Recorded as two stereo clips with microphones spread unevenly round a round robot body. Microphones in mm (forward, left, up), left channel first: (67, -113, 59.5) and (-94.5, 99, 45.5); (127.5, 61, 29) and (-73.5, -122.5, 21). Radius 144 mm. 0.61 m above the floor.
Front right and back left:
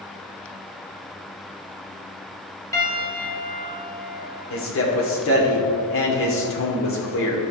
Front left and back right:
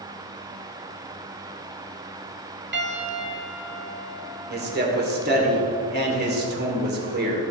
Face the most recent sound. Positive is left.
turn(degrees=-90)